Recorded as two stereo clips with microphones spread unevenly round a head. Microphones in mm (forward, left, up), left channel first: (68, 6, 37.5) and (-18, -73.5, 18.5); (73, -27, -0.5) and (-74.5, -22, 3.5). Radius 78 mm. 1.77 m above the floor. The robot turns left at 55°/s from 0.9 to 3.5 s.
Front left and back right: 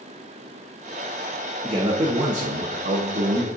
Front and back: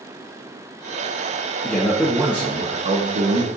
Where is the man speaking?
80° right, 0.7 m; by 3.5 s straight behind, 0.7 m.